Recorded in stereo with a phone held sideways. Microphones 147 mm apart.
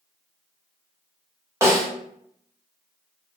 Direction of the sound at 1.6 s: 20° right (ahead or behind).